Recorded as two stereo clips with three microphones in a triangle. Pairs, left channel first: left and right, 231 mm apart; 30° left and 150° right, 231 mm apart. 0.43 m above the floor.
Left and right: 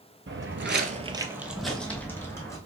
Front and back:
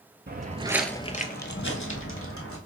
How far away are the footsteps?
About 0.7 m.